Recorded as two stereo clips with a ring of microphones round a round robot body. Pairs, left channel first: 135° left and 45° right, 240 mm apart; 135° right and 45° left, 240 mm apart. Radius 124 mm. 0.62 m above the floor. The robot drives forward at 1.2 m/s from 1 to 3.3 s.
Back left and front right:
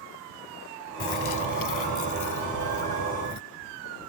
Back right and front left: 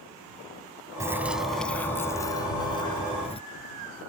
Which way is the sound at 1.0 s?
125° left.